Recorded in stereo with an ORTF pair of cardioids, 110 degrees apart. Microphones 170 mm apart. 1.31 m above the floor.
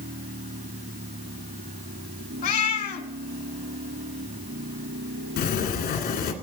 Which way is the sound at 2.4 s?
65° left.